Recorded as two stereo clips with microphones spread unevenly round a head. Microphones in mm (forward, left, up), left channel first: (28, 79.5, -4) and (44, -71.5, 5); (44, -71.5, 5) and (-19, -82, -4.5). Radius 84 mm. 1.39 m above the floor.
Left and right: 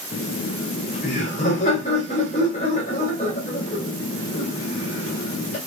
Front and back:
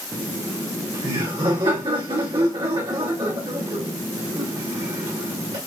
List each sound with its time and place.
0.1 s laughter: 150° left, 2.5 m